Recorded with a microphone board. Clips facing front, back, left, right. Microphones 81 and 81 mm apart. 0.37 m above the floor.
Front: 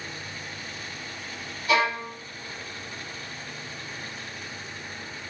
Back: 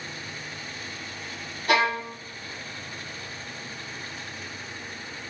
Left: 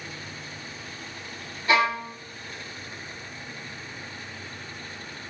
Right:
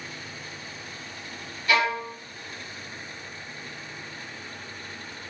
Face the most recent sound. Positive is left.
turn(degrees=150)